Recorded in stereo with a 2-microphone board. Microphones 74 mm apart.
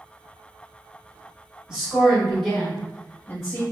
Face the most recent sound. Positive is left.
turn(degrees=30)  # may be behind; listen again after turning